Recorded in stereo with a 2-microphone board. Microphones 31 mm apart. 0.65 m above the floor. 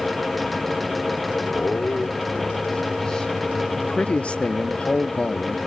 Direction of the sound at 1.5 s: 45° left (ahead or behind).